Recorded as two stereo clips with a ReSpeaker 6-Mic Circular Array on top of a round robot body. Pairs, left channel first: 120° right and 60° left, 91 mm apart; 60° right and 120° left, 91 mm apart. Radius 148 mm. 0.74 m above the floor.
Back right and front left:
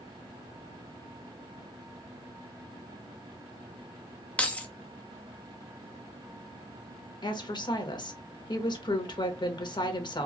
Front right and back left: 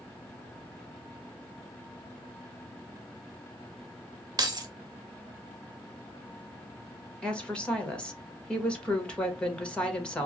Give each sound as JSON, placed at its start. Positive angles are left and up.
{"t": 4.4, "sound": "keys jangling", "azimuth_deg": 165, "distance_m": 0.8}
{"t": 7.2, "sound": "a woman speaking", "azimuth_deg": -140, "distance_m": 1.5}